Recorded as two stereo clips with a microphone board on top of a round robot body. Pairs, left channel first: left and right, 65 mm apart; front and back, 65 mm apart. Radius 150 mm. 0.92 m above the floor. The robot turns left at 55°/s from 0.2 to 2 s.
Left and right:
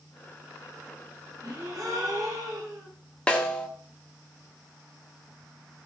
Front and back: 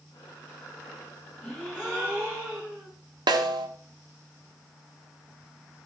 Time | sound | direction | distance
1.4 | a gasp | 80° right | 10 m
3.3 | a snare drum | 165° left | 1.3 m